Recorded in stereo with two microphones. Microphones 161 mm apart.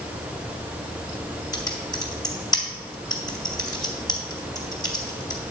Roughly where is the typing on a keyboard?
Left.